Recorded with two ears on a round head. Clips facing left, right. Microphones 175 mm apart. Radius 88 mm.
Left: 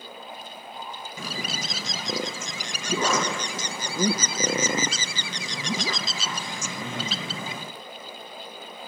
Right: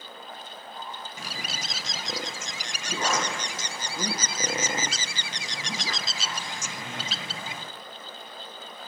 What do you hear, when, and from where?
1.2 s a bird: 70° left (ahead or behind), 0.5 m